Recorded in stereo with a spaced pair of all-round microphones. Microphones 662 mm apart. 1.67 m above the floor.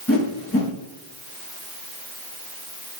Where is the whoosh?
20° left (ahead or behind), 1.5 m.